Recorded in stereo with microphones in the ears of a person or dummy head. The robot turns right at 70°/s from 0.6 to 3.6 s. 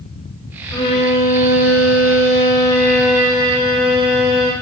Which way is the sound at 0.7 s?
25° left.